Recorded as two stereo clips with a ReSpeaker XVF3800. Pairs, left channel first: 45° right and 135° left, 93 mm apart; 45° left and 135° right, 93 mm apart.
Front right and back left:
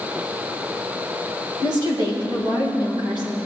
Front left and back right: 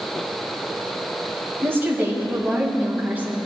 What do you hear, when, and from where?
1.6 s a woman speaking: 165° left, 2.5 m; by 3.4 s 155° left, 3.5 m